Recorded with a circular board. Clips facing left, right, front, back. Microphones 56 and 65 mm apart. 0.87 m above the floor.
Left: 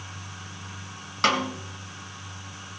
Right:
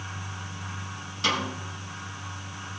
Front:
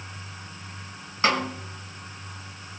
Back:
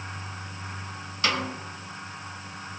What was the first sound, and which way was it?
A snare drum, 60° left.